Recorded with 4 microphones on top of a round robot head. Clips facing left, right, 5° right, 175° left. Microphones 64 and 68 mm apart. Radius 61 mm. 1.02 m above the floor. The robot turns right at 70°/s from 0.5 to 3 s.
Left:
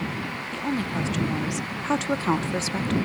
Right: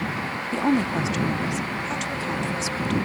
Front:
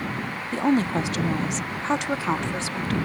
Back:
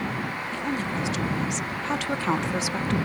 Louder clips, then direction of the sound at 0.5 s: Right 6 dB, front 9 dB; 45° right.